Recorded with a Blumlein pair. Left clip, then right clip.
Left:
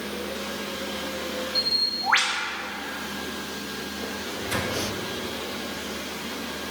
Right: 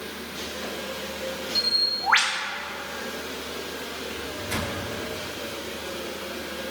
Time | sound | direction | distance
1.6 | a bird | 5° right | 1.2 m
4.1 | a microwave | straight ahead | 2 m